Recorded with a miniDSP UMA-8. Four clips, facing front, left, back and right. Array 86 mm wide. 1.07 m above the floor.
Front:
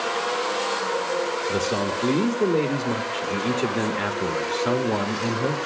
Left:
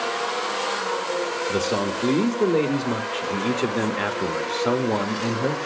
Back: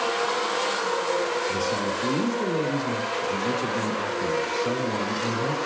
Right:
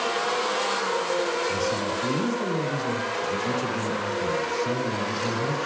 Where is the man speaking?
60° left, 1.7 m.